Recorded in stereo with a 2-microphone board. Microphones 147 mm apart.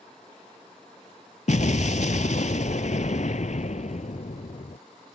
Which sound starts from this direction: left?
An explosion, at 1.5 s.